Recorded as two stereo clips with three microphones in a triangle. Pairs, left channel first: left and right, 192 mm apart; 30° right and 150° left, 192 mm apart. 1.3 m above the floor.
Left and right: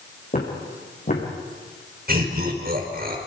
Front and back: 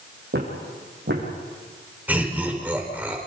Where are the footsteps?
130° left, 5.5 m.